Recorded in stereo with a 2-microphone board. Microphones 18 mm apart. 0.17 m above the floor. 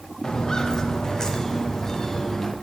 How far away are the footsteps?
About 2 m.